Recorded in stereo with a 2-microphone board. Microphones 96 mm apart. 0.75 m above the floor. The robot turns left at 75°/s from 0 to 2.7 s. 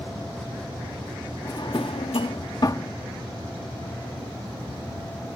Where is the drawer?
40° left (ahead or behind).